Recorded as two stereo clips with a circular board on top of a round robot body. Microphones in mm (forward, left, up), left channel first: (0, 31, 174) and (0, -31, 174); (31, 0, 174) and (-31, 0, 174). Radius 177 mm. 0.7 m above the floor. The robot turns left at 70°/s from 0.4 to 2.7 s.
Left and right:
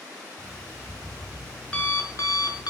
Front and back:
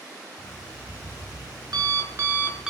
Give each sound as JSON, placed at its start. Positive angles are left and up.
{"t": 0.4, "sound": "an alarm clock", "azimuth_deg": -105, "distance_m": 5.5}